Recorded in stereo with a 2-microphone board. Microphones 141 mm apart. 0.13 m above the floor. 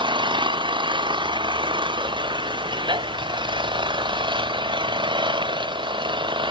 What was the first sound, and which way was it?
An engine running, 35° right (ahead or behind).